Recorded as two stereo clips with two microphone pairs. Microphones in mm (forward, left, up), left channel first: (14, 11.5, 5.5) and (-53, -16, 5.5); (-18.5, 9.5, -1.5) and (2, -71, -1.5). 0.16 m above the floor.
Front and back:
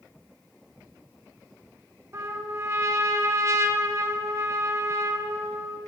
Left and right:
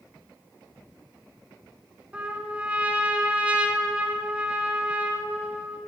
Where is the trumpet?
140° right, 0.9 m.